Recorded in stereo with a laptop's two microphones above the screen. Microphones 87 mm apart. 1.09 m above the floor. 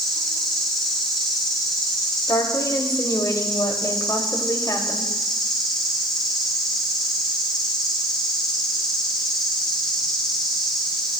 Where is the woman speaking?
45° left (ahead or behind), 2.5 m.